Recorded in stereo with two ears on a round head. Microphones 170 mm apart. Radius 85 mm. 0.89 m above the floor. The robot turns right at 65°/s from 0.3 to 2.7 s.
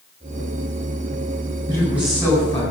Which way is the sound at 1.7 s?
25° right.